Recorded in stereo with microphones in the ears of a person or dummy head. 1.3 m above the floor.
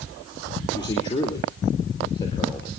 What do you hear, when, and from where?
0.7 s a man speaking: 20° left (ahead or behind), 4 m